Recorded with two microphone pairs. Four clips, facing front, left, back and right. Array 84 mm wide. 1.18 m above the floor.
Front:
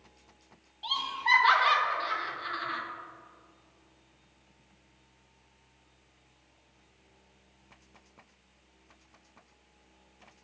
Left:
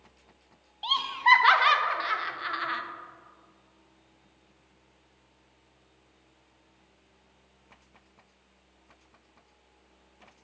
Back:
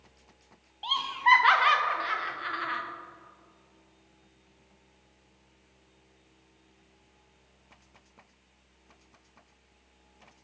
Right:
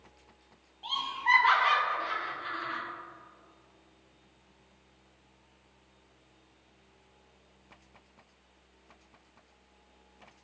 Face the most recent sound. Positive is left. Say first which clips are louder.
# left 7 dB, back 6 dB
turn(degrees=110)